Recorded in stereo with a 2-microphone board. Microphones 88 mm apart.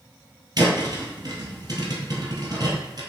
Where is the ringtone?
No ringtone in this recording.